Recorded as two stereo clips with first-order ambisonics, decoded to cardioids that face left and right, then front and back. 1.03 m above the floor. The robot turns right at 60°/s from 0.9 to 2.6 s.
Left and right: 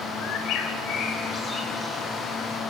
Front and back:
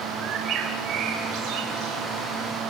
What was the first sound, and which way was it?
A bird, 130° left.